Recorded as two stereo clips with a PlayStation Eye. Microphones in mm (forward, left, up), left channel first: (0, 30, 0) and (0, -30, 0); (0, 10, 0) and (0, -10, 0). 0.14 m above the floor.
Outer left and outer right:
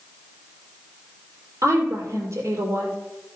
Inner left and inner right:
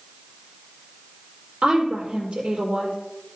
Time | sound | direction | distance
1.6 | a woman speaking | 60° right (ahead or behind) | 3.5 m